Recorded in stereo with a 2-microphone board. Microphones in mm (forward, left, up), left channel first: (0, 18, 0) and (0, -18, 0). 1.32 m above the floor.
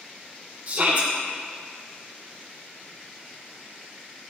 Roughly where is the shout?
Right.